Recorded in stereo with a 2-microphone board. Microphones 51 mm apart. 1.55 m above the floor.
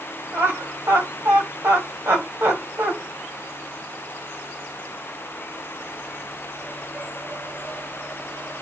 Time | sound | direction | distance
0.3 | laughter | 70° right (ahead or behind) | 1.5 m